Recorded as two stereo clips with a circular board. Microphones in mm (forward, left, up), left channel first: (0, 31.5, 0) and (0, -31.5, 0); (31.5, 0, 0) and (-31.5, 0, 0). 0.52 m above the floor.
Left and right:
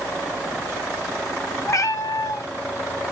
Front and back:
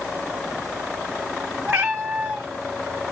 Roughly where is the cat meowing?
Behind left.